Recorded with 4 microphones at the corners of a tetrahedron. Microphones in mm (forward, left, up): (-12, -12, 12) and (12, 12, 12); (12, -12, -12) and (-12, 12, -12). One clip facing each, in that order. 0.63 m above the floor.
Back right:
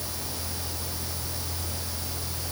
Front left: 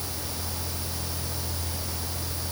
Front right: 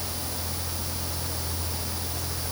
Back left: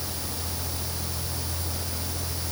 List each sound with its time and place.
Only background noise.